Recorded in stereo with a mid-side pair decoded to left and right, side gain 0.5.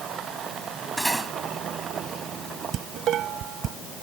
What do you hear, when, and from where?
1.0 s cutlery clinking: 10° right
2.7 s dishes clattering: 60° right